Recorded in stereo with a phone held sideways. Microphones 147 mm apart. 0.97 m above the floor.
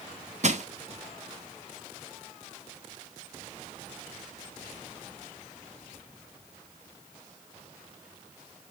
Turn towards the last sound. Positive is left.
turn(degrees=-50)  # may be behind; listen again after turning